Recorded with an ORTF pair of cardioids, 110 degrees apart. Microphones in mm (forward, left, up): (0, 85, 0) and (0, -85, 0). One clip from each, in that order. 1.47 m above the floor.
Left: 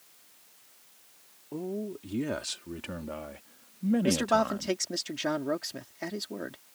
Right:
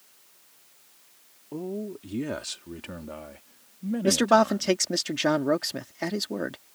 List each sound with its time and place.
1.5 s a man speaking: 5° right; by 4.8 s 35° left
4.0 s a man speaking: 35° right